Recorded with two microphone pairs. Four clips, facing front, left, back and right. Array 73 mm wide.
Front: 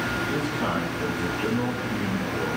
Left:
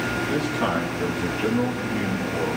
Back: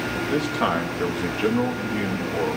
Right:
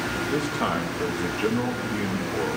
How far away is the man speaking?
About 1.4 m.